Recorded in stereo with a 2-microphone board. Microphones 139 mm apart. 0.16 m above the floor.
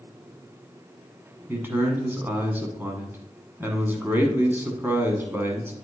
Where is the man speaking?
15° right (ahead or behind), 1.1 m.